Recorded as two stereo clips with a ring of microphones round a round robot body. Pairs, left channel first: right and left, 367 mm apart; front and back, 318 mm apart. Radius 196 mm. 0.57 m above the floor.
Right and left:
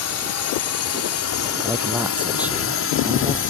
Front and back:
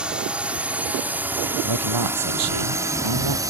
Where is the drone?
95° right; by 3.5 s 110° right.